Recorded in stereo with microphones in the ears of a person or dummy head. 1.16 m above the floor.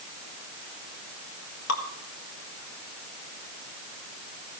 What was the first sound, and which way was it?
Dripping, 80° left.